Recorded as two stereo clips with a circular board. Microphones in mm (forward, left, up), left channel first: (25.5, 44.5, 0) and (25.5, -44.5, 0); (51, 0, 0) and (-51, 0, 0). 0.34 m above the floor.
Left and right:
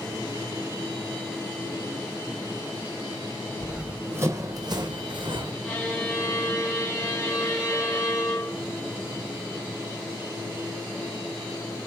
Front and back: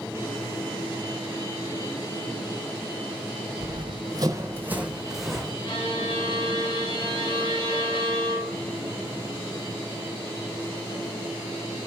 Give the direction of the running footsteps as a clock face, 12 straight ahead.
6 o'clock.